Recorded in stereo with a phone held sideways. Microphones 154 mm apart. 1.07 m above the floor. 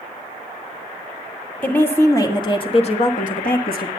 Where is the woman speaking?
10° left (ahead or behind), 1.7 m; by 3.9 s 75° left (ahead or behind), 1.4 m.